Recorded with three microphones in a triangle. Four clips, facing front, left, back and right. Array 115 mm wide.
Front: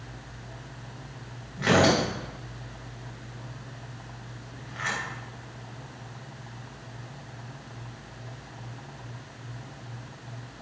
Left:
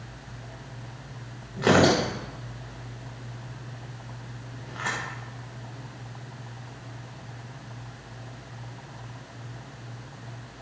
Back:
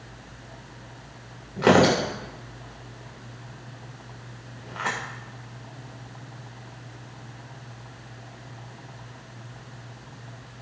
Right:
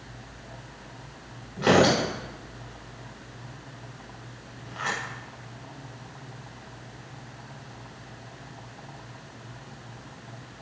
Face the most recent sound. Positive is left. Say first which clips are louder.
# even, back 4 dB
turn(degrees=175)